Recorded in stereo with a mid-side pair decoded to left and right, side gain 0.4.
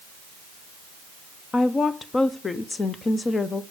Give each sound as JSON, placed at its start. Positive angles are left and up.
{"t": 1.5, "sound": "a woman speaking", "azimuth_deg": 35, "distance_m": 0.9}